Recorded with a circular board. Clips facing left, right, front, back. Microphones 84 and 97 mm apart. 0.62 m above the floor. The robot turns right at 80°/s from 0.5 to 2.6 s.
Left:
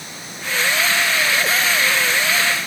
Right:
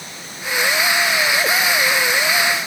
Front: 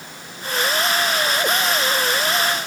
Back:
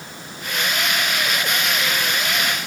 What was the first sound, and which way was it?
Only background noise.